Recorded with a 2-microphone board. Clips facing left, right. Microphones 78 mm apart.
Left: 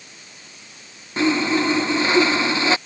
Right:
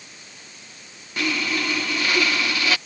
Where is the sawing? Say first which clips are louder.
Left 6 dB; 25° left (ahead or behind).